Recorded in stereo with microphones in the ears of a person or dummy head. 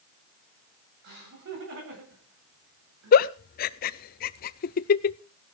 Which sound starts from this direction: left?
A giggle, at 3.1 s.